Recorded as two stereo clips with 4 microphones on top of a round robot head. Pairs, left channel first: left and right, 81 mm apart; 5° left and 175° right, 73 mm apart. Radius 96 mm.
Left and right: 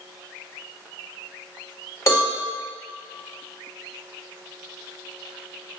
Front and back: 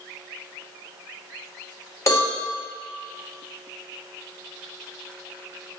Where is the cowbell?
45° left, 2.0 m.